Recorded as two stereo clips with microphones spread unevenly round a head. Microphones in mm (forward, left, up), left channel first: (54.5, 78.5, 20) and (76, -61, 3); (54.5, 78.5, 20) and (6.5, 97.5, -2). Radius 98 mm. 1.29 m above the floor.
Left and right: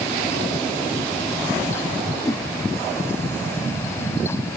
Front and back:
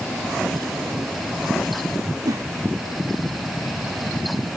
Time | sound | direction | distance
2.2 | a whoosh | 170° left | 2.5 m